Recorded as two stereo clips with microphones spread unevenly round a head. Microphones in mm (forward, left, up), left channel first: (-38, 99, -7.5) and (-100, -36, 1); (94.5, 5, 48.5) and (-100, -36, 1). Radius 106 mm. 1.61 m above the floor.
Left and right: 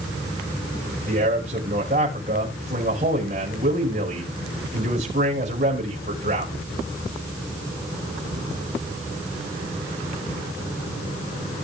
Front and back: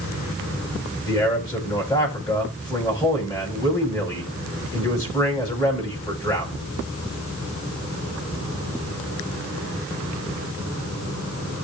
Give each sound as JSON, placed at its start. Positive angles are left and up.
{"t": 1.1, "sound": "a man speaking", "azimuth_deg": -60, "distance_m": 7.5}